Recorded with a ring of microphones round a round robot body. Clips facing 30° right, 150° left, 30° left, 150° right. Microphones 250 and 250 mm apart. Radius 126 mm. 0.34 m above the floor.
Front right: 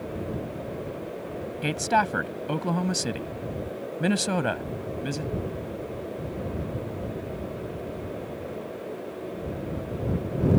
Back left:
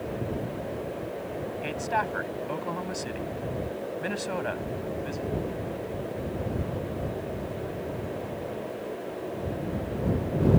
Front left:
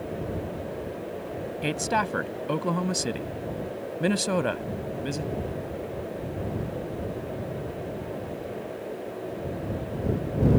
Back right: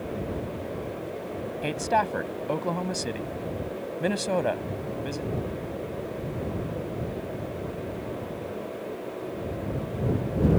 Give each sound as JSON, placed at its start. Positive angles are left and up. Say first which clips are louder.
{"t": 1.6, "sound": "a woman speaking", "louder": "front right 4 dB, even", "azimuth_deg": -40}